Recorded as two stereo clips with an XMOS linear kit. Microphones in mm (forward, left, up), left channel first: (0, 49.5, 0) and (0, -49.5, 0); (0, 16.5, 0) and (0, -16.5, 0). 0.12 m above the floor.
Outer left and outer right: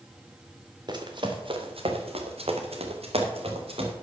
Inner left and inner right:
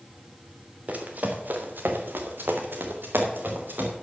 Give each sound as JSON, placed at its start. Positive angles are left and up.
{"t": 0.9, "sound": "running footsteps", "side_deg": -45, "distance_m": 2.0}